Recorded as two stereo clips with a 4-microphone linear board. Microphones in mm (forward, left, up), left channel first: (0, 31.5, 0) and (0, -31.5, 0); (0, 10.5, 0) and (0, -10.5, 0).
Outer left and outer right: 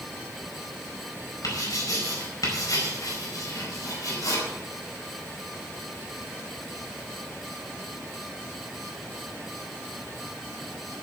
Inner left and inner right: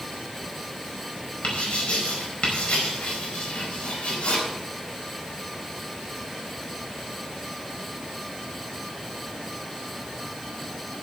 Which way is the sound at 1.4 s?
70° left (ahead or behind).